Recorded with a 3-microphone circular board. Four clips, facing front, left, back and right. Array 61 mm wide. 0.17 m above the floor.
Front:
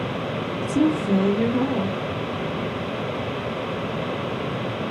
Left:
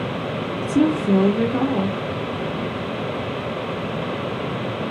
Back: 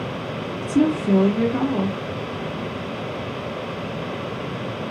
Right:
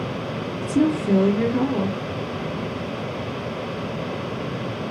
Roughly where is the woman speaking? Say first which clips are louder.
Left 2 dB, back 2 dB; behind left.